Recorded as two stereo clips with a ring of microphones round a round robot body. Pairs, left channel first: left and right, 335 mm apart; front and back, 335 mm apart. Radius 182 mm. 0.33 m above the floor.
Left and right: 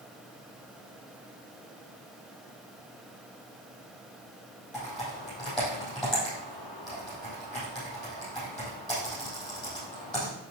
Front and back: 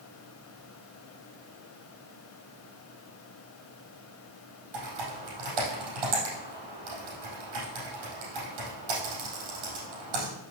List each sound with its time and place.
4.7 s typing on a keyboard: straight behind, 4.5 m